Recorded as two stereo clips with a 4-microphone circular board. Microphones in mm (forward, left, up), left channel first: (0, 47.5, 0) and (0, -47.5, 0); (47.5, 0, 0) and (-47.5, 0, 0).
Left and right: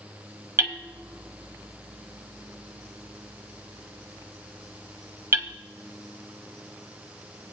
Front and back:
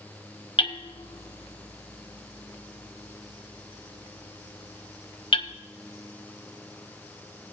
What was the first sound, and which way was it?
Hammering, 25° right.